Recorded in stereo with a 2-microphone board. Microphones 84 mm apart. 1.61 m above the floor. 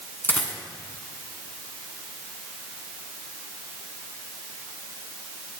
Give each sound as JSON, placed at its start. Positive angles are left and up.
{"t": 0.2, "sound": "a dropped coin", "side_deg": 25, "distance_m": 2.0}